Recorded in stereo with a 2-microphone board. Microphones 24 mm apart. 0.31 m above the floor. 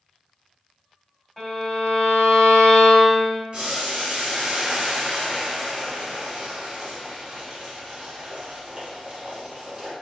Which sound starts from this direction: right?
Boiling, at 3.5 s.